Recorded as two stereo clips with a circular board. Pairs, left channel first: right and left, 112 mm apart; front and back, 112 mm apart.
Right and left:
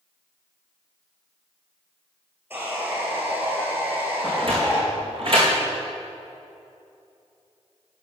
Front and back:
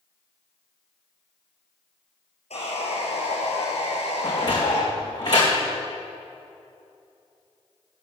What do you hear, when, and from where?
2.5 s sawing: 20° left, 4.5 m
4.2 s a sliding door: 50° left, 4.5 m